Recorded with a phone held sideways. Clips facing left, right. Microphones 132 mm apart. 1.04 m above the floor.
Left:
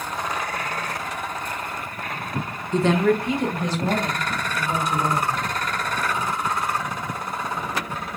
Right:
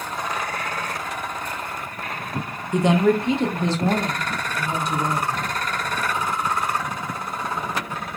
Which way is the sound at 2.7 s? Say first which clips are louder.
Right 1 dB; 15° right (ahead or behind).